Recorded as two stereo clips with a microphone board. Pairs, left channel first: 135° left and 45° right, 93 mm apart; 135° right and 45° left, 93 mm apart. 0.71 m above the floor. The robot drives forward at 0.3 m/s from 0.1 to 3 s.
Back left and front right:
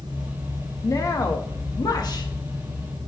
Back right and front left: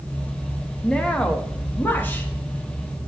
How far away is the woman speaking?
About 0.9 m.